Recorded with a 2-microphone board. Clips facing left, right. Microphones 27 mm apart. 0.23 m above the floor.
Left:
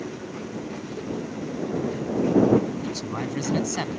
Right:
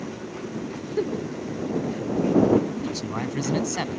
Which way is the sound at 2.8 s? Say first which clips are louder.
Right 1 dB; 5° right (ahead or behind).